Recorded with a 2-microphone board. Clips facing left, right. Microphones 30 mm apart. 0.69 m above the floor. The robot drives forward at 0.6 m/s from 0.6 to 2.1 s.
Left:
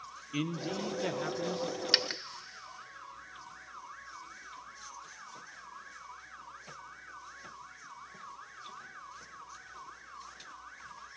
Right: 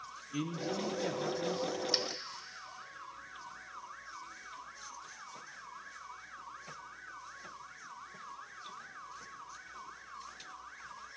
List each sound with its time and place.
0.3 s a man speaking: 35° left (ahead or behind), 0.8 m; by 1.8 s 20° left (ahead or behind), 1.3 m
1.9 s a dropped coin: 75° left (ahead or behind), 0.7 m; by 2.2 s 70° left (ahead or behind), 0.7 m